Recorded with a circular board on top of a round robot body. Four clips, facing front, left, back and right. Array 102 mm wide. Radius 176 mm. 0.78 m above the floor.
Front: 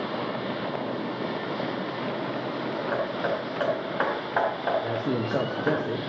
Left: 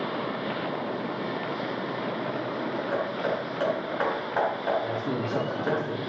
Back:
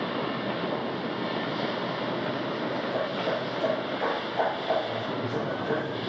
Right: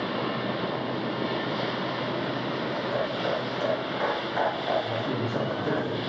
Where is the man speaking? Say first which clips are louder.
Even, front 3 dB; 10° left, 1.3 m.